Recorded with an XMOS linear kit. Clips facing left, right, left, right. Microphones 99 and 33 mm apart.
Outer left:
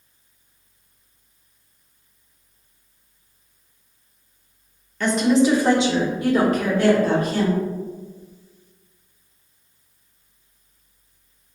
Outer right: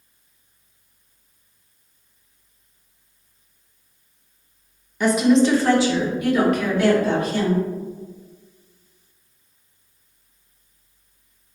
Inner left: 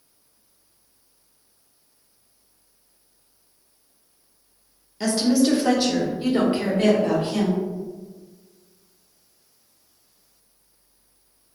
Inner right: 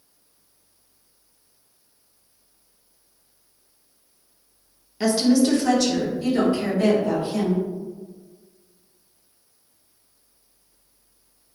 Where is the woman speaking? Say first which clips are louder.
Outer right 1 dB, inner right 1 dB; 15° right (ahead or behind), 0.5 m; by 7.6 s 45° left (ahead or behind), 1.6 m.